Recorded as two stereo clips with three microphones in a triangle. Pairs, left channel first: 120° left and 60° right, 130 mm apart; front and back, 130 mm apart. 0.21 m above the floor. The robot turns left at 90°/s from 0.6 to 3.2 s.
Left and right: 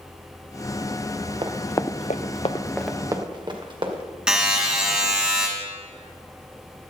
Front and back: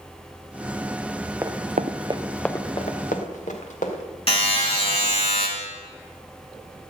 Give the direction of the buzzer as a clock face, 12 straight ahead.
11 o'clock.